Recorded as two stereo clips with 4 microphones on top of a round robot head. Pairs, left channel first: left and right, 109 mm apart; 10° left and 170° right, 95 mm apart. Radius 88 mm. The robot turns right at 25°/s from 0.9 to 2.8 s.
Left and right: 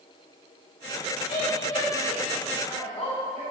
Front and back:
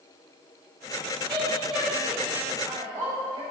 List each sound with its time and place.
1.3 s a woman speaking: 95° left, 3 m; by 3.4 s 135° left, 3 m